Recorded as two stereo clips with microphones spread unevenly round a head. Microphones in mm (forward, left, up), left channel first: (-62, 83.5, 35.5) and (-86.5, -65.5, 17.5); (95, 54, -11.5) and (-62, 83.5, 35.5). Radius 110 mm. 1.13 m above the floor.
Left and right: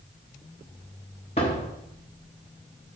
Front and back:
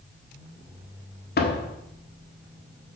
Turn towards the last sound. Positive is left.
turn(degrees=15)